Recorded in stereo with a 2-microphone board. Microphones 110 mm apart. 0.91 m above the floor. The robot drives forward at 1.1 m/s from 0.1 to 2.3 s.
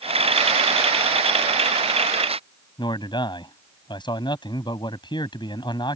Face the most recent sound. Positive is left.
turn(degrees=40)  # may be behind; listen again after turning